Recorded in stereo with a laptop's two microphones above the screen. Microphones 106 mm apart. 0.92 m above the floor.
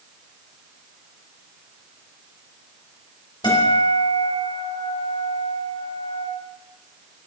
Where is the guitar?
55° left (ahead or behind), 2.5 m.